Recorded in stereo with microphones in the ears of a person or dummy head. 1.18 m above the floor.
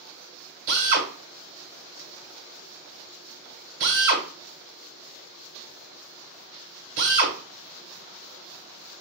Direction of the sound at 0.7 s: 65° right (ahead or behind).